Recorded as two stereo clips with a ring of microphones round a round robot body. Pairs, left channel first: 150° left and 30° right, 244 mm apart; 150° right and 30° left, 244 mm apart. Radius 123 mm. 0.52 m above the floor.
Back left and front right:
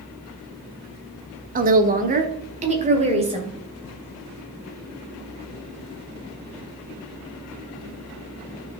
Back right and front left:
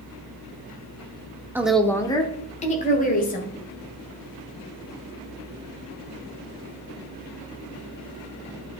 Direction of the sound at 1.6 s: 45° right.